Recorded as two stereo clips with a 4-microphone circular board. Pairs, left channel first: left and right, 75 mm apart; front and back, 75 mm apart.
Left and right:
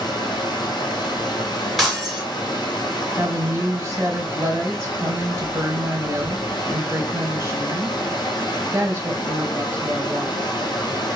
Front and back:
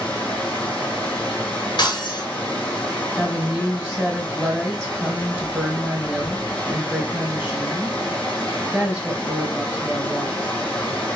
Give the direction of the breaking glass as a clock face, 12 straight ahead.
12 o'clock.